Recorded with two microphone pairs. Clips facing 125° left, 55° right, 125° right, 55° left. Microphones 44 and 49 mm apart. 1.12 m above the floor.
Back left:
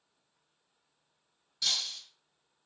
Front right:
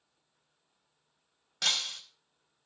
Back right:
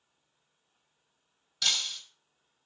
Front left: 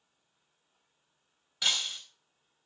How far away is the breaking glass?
About 2.5 m.